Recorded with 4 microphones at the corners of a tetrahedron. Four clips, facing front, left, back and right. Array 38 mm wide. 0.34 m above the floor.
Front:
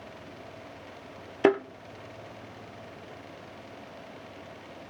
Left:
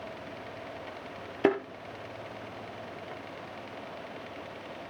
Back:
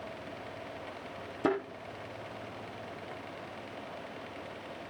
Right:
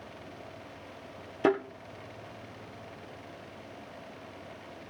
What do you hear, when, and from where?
1.4 s a thud: 15° left, 3 m